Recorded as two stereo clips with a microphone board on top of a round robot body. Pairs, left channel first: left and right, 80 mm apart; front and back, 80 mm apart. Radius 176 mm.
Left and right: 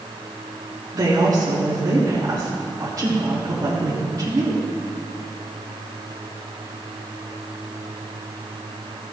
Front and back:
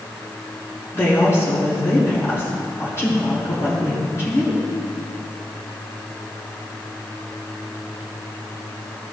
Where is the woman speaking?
50° right, 2.5 m.